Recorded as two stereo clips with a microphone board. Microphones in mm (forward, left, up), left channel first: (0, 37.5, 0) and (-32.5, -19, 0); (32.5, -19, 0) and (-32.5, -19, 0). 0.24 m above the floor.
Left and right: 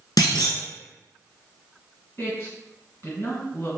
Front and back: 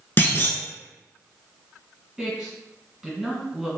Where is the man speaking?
90° left, 2.0 m.